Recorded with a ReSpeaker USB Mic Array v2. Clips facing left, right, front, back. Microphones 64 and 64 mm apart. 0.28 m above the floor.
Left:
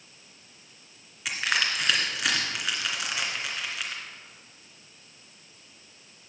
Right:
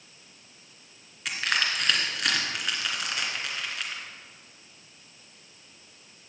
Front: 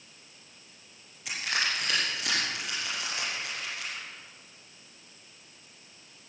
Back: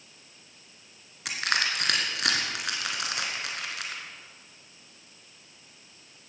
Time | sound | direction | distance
1.2 | crushing | 175° left | 2.5 m